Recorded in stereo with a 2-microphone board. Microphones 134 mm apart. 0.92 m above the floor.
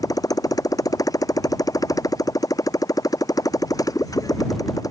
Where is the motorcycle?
25° left (ahead or behind).